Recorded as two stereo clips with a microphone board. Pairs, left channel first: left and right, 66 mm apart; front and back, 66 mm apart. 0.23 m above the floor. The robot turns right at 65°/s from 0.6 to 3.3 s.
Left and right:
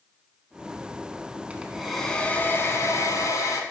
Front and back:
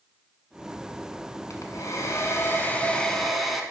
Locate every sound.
1.5 s a hair dryer: 25° right, 1.3 m; by 3.6 s 90° left, 1.3 m